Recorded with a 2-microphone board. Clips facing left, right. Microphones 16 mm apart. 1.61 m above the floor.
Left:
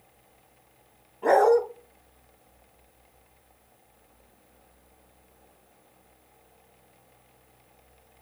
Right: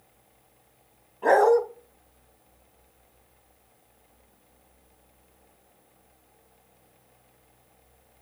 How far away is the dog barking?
About 3.5 m.